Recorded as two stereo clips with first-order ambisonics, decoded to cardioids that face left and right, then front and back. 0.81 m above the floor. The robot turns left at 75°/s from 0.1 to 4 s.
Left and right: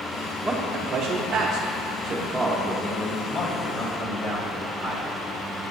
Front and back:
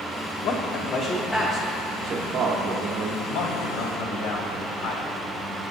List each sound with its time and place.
0.4 s a man speaking: 15° right, 0.7 m; by 3.1 s 145° left, 0.7 m
3.2 s a man speaking: 30° left, 1.3 m; by 5.1 s 30° right, 1.3 m